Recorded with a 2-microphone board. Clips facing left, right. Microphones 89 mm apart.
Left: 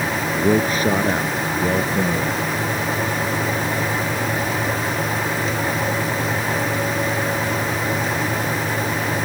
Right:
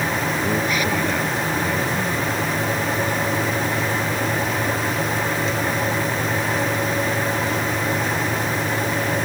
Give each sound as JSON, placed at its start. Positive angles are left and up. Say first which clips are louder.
{"t": 0.4, "sound": "a man speaking", "louder": "left 8 dB", "side_deg": 35}